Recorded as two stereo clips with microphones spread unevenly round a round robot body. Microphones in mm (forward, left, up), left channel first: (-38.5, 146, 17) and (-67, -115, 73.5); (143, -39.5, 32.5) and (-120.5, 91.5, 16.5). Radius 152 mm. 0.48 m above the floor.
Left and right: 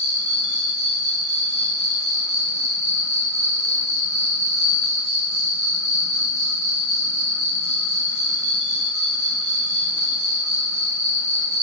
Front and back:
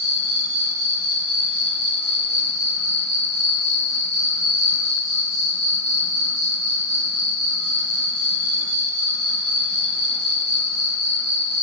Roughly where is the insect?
Behind right.